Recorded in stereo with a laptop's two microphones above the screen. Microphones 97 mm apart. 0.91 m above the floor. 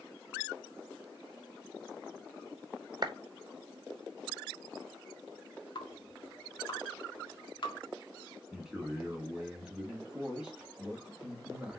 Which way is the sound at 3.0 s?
45° right (ahead or behind).